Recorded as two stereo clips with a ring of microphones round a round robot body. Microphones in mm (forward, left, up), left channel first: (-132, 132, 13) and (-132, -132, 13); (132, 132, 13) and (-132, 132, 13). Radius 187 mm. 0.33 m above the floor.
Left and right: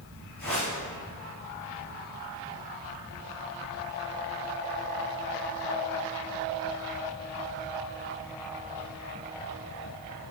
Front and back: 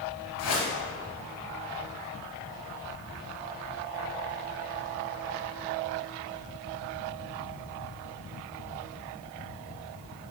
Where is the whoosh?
25° left, 3 m.